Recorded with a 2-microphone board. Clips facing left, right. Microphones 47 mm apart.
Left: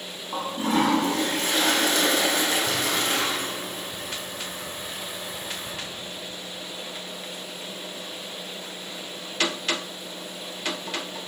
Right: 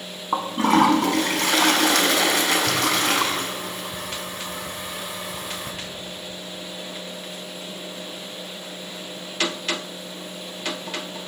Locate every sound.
0.3 s a toilet flushing: 75° right (ahead or behind), 0.8 m